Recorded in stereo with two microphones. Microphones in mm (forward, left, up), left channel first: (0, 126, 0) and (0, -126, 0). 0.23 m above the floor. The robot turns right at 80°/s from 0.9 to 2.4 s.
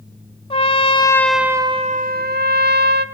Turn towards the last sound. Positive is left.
turn(degrees=-95)